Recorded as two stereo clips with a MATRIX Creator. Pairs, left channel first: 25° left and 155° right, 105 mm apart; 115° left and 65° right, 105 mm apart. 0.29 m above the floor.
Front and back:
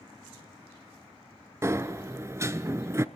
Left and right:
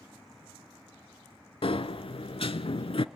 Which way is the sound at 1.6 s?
140° left.